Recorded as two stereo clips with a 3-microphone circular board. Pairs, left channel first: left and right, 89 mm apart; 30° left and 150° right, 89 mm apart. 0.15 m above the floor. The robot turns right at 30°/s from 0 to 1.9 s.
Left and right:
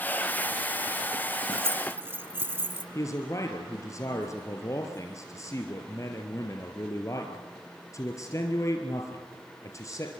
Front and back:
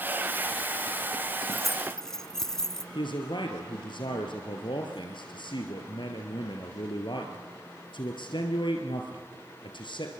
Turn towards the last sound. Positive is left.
turn(degrees=40)